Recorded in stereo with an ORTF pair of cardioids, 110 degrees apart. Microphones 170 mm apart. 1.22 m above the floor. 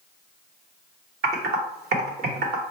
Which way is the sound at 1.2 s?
70° right.